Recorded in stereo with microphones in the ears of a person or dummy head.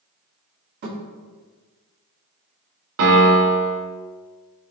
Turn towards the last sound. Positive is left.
turn(degrees=-70)  # may be behind; listen again after turning